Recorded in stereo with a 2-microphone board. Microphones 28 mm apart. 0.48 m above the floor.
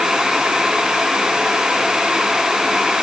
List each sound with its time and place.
Only background noise.